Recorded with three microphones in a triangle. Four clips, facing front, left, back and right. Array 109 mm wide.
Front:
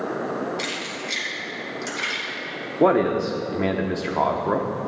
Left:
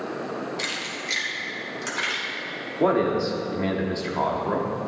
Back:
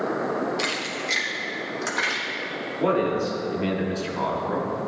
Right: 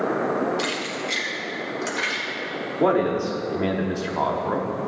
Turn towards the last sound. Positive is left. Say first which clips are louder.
# right 1 dB, front 4 dB
turn(degrees=-10)